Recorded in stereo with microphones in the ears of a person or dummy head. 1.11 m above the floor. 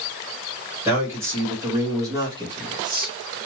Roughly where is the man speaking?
Centre.